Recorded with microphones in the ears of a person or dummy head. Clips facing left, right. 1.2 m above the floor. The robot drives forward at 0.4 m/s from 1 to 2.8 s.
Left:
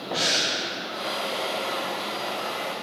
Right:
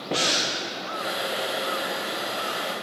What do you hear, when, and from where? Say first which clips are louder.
0.1 s breathing: right 2 dB; 25° right (ahead or behind), 0.6 m